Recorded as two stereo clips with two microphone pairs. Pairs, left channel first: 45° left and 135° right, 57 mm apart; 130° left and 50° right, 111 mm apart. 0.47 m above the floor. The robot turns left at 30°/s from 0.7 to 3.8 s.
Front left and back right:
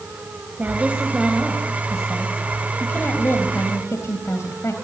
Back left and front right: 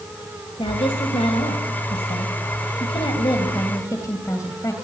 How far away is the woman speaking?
About 2.5 m.